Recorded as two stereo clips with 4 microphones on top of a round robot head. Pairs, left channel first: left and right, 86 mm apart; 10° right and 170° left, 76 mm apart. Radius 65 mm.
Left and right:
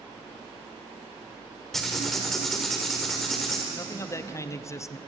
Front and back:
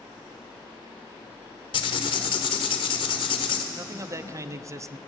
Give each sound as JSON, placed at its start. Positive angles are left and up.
{"t": 1.7, "sound": "writing", "azimuth_deg": 5, "distance_m": 1.3}
{"t": 3.7, "sound": "a man speaking", "azimuth_deg": 135, "distance_m": 0.6}